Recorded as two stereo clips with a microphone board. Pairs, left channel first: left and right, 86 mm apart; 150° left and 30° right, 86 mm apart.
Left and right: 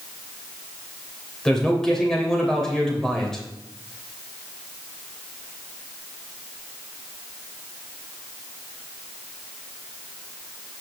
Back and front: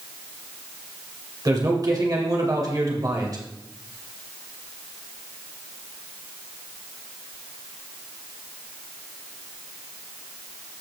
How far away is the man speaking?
About 2.5 m.